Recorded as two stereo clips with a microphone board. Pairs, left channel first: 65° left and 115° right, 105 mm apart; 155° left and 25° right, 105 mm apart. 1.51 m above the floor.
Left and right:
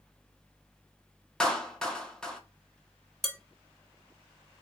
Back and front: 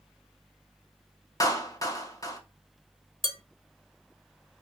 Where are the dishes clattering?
20° right, 1.0 m.